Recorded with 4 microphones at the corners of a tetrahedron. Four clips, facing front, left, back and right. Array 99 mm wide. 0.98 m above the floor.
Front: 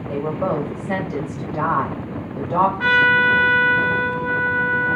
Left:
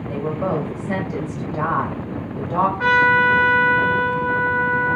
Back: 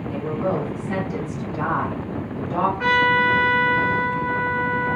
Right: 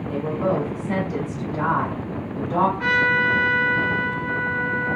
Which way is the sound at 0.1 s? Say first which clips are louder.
Even, front 2 dB; 15° left.